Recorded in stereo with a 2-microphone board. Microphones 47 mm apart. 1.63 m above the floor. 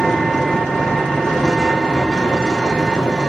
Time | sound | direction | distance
0.0 | an engine running | 15° left (ahead or behind) | 2 m